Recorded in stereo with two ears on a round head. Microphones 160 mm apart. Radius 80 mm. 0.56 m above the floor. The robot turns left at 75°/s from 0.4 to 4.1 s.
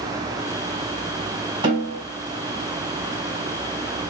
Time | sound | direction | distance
1.6 | a snare drum | 30° right (ahead or behind) | 3 m